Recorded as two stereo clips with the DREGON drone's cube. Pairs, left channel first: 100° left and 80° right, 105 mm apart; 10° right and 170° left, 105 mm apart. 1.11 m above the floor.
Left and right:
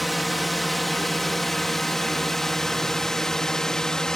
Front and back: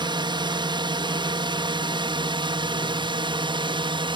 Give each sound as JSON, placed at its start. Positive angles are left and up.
{"t": 0.0, "sound": "a drone", "azimuth_deg": -170}